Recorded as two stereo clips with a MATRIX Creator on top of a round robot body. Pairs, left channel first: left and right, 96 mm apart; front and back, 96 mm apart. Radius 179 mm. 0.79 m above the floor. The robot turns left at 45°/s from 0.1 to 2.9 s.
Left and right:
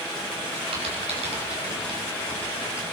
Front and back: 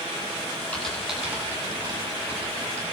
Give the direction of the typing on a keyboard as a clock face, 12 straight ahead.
3 o'clock.